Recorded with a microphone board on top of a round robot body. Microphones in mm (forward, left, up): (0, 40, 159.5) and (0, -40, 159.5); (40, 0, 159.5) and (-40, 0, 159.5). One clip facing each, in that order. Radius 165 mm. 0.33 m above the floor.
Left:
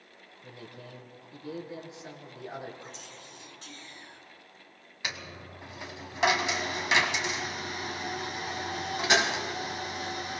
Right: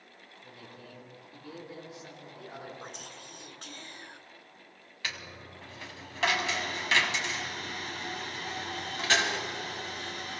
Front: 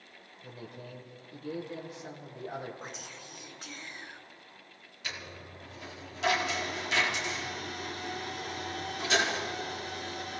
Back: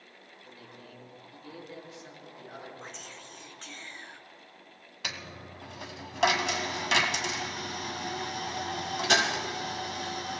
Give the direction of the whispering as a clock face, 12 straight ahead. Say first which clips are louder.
Right 1 dB, front 1 dB; 3 o'clock.